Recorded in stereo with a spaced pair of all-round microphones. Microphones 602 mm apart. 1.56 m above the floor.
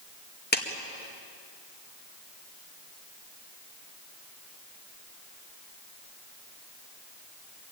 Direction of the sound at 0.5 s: 15° left (ahead or behind).